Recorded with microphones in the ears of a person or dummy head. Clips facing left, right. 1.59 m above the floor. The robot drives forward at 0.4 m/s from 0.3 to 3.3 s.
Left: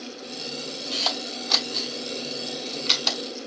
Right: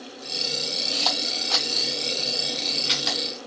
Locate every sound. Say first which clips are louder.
0.9 s a camera shutter: even; 30° left (ahead or behind), 3.5 m; by 3.2 s 40° left (ahead or behind), 3 m